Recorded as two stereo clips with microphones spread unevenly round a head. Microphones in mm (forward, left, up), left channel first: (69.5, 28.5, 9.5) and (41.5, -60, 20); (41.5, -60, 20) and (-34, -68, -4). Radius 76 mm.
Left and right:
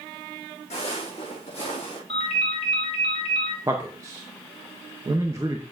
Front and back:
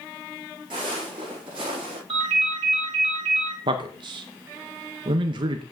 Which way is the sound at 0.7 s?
120° left.